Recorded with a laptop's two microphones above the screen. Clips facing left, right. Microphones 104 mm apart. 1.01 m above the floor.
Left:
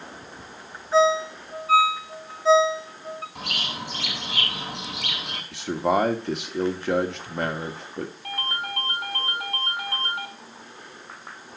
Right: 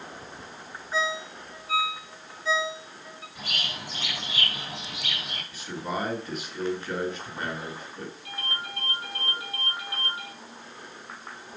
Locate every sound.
0.9 s a ringtone: 75° left (ahead or behind), 1.5 m
3.4 s a bird: 70° left (ahead or behind), 6.5 m
5.5 s a man speaking: 75° left (ahead or behind), 1.8 m
8.2 s a ringtone: 75° left (ahead or behind), 6 m